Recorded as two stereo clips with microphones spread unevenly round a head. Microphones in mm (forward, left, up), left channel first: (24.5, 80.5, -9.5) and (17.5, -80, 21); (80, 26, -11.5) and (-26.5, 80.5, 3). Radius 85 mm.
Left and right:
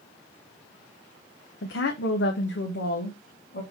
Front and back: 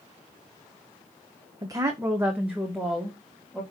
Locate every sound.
1.6 s a woman speaking: 90° left, 1.0 m; by 3.6 s 60° left, 2.5 m